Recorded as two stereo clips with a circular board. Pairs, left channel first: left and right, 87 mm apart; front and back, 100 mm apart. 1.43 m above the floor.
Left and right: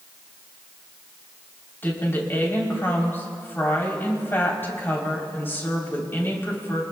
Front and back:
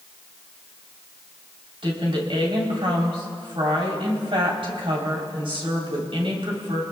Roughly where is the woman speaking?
Behind left.